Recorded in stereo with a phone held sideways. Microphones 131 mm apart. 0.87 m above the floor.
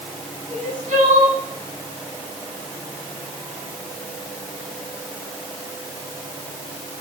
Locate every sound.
0.5 s crying: 85° right, 6.5 m